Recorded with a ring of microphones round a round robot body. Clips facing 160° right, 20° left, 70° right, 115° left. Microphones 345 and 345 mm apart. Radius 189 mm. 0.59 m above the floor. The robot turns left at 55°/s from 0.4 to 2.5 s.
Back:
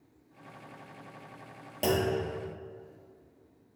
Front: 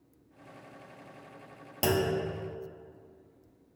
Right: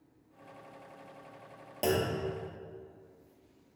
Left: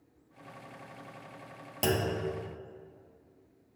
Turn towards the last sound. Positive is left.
turn(degrees=35)